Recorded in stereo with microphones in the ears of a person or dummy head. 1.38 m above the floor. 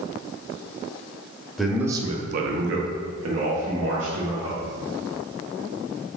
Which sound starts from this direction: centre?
A man speaking, at 1.6 s.